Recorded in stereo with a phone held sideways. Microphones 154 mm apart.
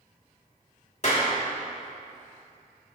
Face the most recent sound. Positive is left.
turn(degrees=50)  # may be behind; listen again after turning